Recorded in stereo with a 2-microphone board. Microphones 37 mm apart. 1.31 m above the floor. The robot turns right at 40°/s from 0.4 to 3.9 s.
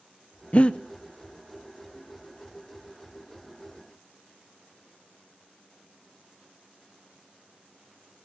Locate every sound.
0.5 s breathing: 35° left (ahead or behind), 0.5 m; by 0.8 s 25° left (ahead or behind), 0.5 m